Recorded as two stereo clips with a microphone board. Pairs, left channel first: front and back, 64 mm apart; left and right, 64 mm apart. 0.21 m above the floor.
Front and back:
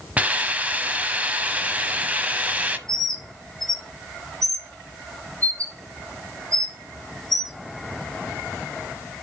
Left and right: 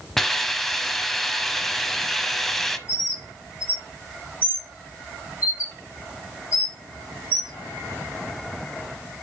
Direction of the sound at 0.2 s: 170° left.